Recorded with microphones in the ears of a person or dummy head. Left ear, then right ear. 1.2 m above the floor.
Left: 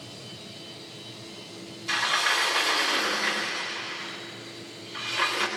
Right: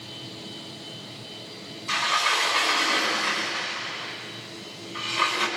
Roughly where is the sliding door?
Left.